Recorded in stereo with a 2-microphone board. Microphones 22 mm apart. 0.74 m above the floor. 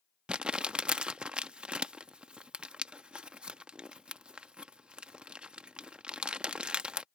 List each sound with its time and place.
0.3 s crumpling: 45° right (ahead or behind)